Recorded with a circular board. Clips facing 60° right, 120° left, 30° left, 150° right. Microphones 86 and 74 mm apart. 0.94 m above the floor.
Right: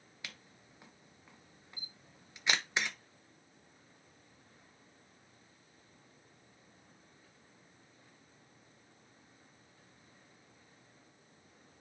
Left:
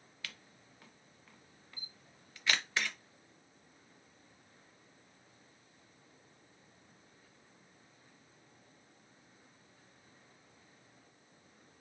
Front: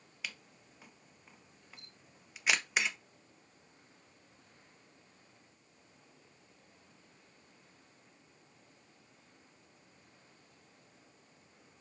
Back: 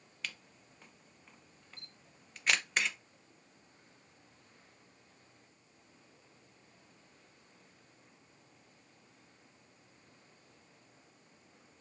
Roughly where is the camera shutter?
Ahead right.